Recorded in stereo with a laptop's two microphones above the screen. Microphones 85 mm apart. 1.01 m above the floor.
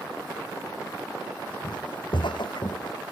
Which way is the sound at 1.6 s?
65° left (ahead or behind).